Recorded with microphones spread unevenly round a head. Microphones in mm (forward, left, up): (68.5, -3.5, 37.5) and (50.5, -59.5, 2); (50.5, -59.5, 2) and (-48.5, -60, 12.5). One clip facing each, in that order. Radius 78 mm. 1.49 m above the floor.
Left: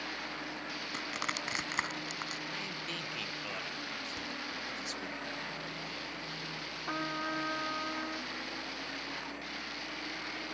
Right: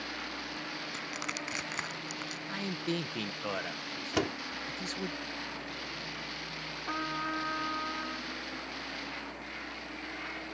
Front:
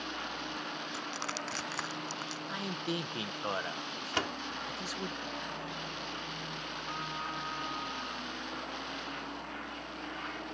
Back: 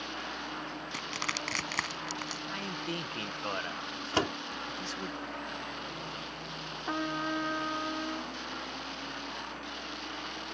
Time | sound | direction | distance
0.9 | crushing | 125° left | ?
2.5 | a man speaking | 80° right | ?
4.1 | a door slam | 125° right | ?
6.9 | a trumpet | 155° left | ?